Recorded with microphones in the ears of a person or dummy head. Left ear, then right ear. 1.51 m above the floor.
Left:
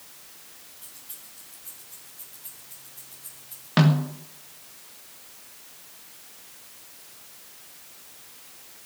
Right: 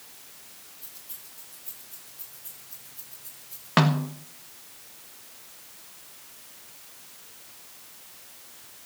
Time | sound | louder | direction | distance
0.8 | keys jangling | left 2 dB | 10° left (ahead or behind) | 7.5 m
3.8 | a snare drum | right 1 dB | 30° right (ahead or behind) | 1.7 m